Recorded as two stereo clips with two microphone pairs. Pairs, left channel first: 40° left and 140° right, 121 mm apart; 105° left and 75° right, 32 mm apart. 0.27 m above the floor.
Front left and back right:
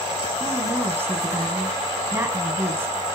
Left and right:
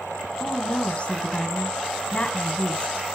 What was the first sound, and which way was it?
A woman speaking, 150° left.